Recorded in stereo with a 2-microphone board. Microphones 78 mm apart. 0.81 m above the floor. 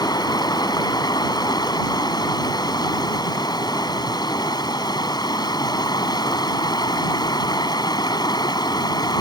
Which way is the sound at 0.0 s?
60° left (ahead or behind).